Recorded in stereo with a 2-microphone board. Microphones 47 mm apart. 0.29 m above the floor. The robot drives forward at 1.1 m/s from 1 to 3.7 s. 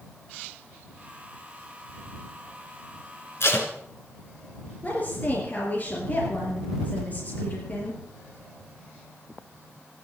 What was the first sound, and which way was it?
Tape being pulled, 60° left (ahead or behind).